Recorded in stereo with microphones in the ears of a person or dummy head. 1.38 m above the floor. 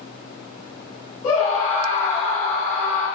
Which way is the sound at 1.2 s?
35° left (ahead or behind).